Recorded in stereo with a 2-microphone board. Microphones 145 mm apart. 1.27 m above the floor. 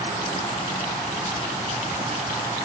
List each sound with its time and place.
Only background noise.